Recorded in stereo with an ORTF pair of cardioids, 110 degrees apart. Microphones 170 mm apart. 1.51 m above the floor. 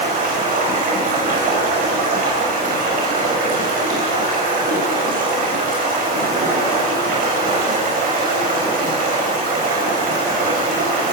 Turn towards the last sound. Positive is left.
turn(degrees=-55)